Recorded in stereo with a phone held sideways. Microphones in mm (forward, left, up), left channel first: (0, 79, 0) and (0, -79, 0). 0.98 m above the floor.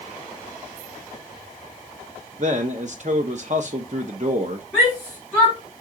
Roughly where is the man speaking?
Right.